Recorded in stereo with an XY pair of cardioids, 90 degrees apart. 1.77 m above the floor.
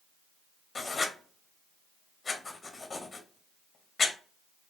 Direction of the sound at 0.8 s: 35° left.